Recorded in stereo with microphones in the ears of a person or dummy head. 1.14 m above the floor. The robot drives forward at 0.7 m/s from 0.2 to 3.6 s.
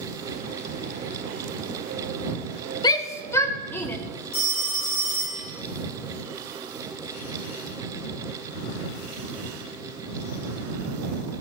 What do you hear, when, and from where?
2.8 s a shout: 15° left (ahead or behind), 0.5 m; by 4.0 s 10° left (ahead or behind), 0.9 m
4.3 s a phone ringing: 75° left (ahead or behind), 3.5 m